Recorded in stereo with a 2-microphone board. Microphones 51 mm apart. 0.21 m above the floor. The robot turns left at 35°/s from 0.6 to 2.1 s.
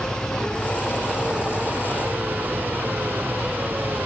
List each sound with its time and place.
0.0 s an engine running: 15° left; by 4.1 s 40° right